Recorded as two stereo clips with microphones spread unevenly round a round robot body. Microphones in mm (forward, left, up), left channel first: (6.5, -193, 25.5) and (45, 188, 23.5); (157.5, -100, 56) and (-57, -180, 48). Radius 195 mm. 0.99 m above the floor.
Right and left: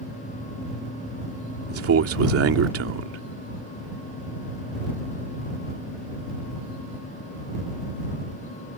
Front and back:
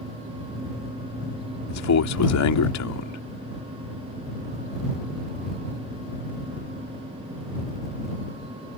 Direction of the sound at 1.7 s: 25° left.